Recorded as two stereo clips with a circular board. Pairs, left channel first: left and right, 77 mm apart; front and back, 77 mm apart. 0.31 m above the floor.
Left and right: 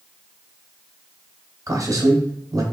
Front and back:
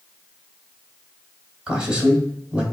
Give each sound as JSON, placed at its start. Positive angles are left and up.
{"t": 1.7, "sound": "a man speaking", "azimuth_deg": -105, "distance_m": 1.5}